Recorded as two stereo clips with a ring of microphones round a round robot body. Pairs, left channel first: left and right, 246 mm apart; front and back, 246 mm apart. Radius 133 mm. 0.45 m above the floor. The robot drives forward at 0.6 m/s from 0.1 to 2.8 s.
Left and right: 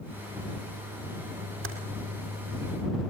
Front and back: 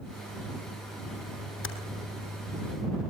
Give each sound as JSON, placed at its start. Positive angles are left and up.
{"t": 1.6, "sound": "typing on a keyboard", "azimuth_deg": -40, "distance_m": 3.0}